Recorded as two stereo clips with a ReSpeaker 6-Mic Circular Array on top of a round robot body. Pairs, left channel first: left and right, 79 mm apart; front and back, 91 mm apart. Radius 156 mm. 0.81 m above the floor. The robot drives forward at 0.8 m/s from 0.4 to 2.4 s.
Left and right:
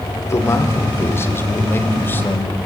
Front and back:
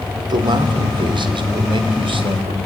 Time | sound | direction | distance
0.2 | a man speaking | 145° left | 3 m